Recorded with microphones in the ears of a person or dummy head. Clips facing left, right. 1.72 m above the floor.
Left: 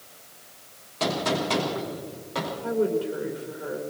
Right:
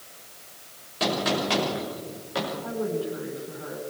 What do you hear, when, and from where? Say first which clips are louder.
1.0 s a gunshot: even; 5° right (ahead or behind), 6 m
2.6 s a woman speaking: left 8 dB; 35° left (ahead or behind), 4 m